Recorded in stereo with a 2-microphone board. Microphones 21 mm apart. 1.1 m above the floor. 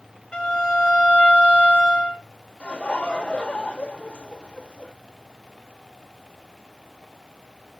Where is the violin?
45° left (ahead or behind), 1.5 m.